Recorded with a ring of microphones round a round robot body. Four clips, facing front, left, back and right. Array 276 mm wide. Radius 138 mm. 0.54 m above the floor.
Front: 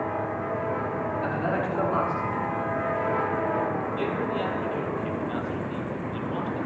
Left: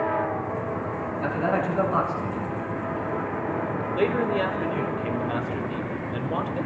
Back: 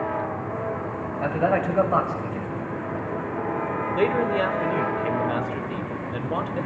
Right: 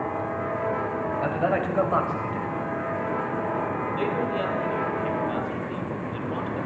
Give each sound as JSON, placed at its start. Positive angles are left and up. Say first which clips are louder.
{"t": 1.2, "sound": "a man speaking", "louder": "left 1 dB, back 8 dB", "azimuth_deg": -150, "distance_m": 3.0}
{"t": 3.9, "sound": "a man speaking", "louder": "left 5 dB, back 6 dB", "azimuth_deg": 155, "distance_m": 1.9}